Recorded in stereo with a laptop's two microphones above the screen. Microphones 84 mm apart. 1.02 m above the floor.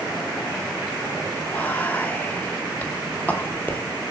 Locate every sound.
1.5 s whispering: 20° left (ahead or behind), 0.7 m